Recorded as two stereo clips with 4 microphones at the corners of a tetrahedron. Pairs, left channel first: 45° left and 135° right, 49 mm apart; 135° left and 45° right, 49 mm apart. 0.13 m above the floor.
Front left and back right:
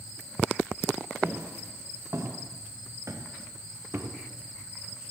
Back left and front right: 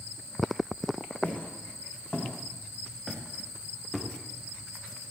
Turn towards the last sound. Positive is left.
turn(degrees=-135)